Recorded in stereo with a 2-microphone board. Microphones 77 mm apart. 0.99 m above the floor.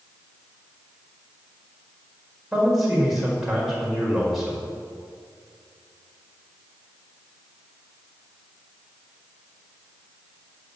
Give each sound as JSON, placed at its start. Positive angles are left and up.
{"t": 2.5, "sound": "a man speaking", "side_deg": -5, "distance_m": 5.0}